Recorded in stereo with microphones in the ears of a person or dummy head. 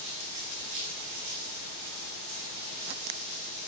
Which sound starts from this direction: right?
Running water, at 0.0 s.